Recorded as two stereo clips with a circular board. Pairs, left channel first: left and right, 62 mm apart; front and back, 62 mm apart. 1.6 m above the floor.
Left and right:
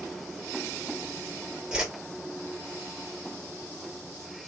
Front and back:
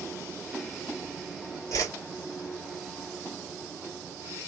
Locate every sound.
1.7 s a whoosh: 10° right, 1.8 m